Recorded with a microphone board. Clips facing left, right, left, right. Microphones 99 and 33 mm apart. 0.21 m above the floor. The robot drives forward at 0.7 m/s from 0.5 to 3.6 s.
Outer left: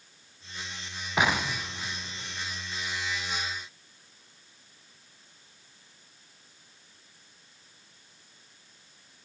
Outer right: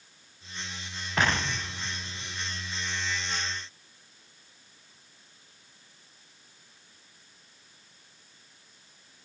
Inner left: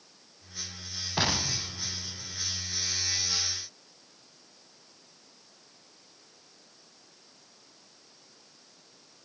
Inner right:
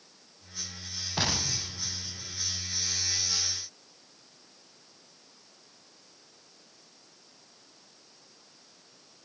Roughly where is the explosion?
Centre.